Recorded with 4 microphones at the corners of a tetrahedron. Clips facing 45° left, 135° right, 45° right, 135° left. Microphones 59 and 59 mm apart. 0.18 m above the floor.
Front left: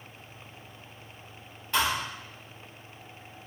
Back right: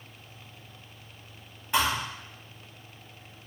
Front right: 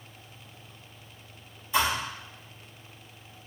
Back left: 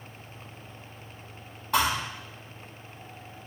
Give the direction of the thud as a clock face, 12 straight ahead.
7 o'clock.